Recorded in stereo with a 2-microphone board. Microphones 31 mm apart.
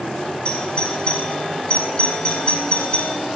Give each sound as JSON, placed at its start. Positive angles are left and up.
{"t": 0.5, "sound": "a doorbell", "side_deg": 35, "distance_m": 2.5}